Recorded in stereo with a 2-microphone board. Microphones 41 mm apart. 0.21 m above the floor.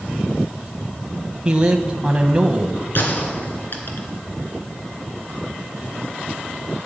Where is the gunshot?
55° left (ahead or behind), 2 m.